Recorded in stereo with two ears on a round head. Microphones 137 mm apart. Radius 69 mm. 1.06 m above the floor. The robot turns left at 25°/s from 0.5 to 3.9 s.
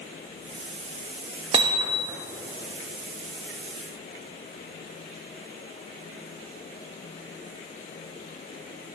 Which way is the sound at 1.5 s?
35° right (ahead or behind).